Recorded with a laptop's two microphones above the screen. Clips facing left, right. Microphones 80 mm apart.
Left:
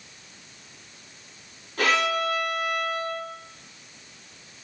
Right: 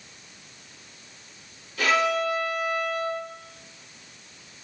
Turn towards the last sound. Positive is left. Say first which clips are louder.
# right 1 dB
turn(degrees=50)  # may be behind; listen again after turning